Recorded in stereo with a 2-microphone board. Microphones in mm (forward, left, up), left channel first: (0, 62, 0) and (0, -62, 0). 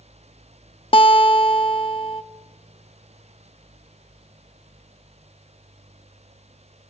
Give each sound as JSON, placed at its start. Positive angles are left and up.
{"t": 0.9, "sound": "a guitar", "side_deg": 45, "distance_m": 0.9}